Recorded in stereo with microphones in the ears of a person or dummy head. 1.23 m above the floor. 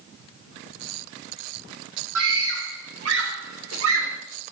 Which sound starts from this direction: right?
A scream, at 2.1 s.